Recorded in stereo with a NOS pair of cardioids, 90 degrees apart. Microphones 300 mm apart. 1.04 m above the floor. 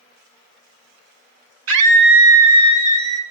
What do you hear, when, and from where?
1.7 s a scream: 55° right, 1.5 m; by 3.2 s 75° right, 2 m